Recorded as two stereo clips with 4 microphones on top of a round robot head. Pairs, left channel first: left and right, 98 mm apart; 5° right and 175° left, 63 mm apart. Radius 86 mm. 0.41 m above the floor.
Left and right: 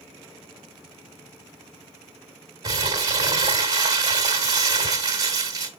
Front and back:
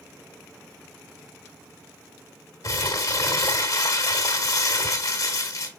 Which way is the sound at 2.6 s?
35° right.